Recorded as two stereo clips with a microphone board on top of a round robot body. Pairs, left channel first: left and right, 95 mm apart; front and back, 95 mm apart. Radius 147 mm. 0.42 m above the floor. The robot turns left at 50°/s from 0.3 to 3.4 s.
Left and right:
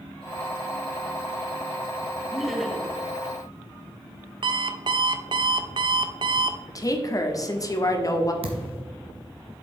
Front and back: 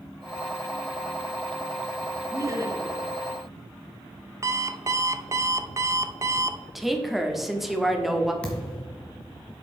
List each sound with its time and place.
2.3 s laughter: 170° right, 1.4 m; by 3.0 s 160° left, 1.4 m
4.4 s an alarm clock: 125° right, 0.5 m
6.8 s a woman speaking: 95° left, 1.4 m
8.4 s a thud: 80° right, 1.3 m